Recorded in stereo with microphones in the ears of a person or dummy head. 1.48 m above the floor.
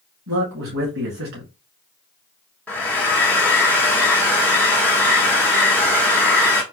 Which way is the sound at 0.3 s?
75° right (ahead or behind).